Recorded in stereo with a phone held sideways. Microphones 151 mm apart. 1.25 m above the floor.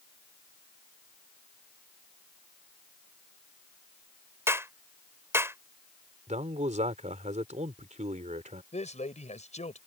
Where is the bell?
No bell in this recording.